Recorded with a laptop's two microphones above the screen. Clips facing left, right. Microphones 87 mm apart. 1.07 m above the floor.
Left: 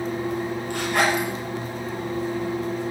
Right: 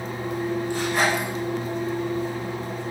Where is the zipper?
60° left (ahead or behind), 4 m.